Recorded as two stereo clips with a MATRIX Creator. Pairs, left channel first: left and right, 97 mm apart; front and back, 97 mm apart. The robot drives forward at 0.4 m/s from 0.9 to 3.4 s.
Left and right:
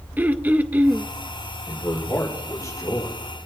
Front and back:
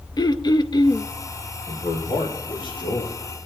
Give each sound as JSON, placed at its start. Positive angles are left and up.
{"t": 0.2, "sound": "throat clearing", "azimuth_deg": -25, "distance_m": 0.5}
{"t": 1.7, "sound": "a man speaking", "azimuth_deg": 30, "distance_m": 5.5}